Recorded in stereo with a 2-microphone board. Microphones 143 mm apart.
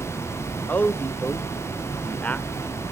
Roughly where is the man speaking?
Centre.